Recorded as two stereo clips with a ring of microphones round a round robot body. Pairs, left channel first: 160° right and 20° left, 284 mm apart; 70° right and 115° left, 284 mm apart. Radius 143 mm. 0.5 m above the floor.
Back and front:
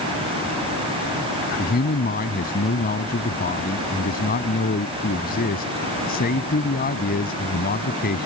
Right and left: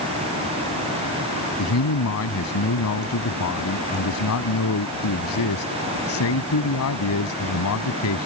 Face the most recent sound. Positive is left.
turn(degrees=-100)